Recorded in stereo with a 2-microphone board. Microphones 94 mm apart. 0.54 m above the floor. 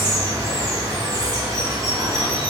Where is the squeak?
I don't hear a squeak.